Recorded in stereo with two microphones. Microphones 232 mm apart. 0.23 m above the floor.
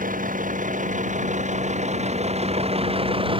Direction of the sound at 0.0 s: 35° right (ahead or behind).